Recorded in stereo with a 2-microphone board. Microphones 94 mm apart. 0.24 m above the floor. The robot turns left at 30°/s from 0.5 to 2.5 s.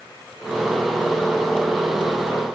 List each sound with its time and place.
Only background noise.